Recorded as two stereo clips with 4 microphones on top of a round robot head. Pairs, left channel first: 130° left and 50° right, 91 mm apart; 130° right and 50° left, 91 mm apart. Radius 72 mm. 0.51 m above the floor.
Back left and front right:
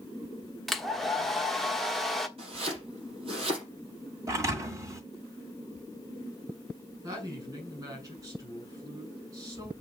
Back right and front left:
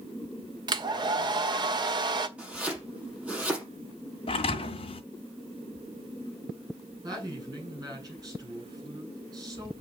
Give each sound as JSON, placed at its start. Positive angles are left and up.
{"t": 0.7, "sound": "a hair dryer", "azimuth_deg": 45, "distance_m": 1.3}
{"t": 2.4, "sound": "chopping", "azimuth_deg": -25, "distance_m": 5.5}
{"t": 4.3, "sound": "a thud", "azimuth_deg": -105, "distance_m": 2.0}
{"t": 7.0, "sound": "a woman speaking", "azimuth_deg": 0, "distance_m": 6.0}